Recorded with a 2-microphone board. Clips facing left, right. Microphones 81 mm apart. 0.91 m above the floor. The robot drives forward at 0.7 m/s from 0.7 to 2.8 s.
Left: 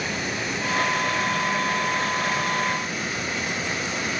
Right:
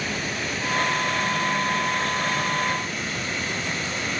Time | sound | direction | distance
0.0 | running water | 10° left (ahead or behind) | 6.5 m